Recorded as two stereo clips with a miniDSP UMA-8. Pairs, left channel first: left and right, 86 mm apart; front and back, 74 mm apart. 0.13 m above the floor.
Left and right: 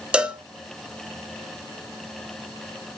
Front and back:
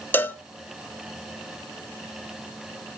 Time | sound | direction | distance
0.1 | a cowbell | 25° right | 0.6 m